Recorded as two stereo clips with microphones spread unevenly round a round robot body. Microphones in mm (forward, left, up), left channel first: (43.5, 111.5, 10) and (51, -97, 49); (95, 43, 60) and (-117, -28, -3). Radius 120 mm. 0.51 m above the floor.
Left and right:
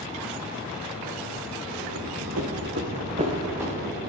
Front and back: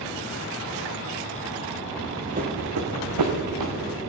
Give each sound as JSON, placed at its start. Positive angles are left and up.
{"t": 1.9, "sound": "running footsteps", "azimuth_deg": -80, "distance_m": 1.8}